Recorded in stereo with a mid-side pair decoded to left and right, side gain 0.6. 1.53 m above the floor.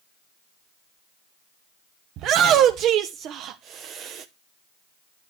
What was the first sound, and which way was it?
A shout, 60° right.